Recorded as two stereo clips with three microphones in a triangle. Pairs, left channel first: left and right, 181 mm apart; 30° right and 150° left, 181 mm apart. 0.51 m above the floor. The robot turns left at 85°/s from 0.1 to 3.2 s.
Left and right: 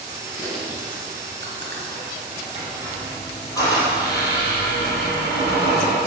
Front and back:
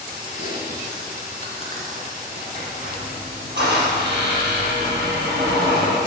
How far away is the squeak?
About 4.5 m.